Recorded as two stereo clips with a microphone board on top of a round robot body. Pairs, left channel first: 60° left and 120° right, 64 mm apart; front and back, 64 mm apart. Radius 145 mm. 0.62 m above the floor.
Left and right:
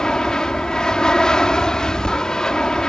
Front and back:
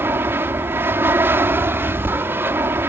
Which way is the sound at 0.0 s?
135° left.